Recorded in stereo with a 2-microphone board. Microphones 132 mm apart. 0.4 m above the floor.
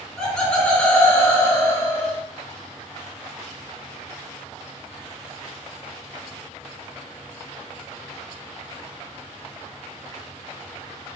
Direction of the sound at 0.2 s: 5° left (ahead or behind).